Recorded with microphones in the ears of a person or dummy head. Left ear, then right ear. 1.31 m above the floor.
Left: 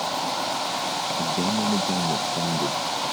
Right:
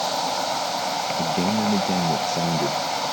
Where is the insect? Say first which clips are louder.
Right 2 dB; 30° right (ahead or behind).